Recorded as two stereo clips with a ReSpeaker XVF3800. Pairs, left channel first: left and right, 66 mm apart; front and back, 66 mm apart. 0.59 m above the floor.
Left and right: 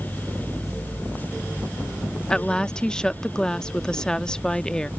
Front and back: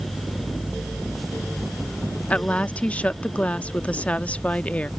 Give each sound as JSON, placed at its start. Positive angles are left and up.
{"t": 2.3, "sound": "a woman speaking", "azimuth_deg": 30}